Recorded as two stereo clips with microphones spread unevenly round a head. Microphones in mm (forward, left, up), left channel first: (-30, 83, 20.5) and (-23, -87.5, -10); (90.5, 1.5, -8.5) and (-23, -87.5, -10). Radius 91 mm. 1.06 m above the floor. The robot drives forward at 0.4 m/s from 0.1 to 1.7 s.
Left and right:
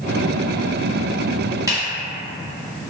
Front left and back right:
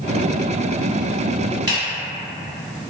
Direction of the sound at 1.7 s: 160° right.